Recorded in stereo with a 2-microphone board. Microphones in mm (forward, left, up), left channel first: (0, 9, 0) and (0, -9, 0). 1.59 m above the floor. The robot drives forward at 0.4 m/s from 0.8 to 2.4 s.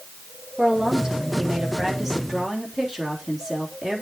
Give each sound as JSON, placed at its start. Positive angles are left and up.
{"t": 0.6, "sound": "a woman speaking", "side_deg": -30, "distance_m": 2.5}